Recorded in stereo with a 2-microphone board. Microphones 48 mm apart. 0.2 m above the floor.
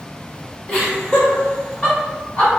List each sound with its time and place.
0.7 s laughter: 15° left (ahead or behind), 2.0 m; by 2.5 s 20° left (ahead or behind), 1.8 m